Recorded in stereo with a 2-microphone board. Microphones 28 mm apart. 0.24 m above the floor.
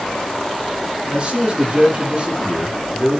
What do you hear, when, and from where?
1.1 s a man speaking: 45° right (ahead or behind), 6.5 m